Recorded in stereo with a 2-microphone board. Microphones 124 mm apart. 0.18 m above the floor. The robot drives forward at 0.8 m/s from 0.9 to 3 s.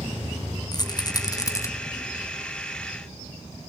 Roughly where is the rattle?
Left.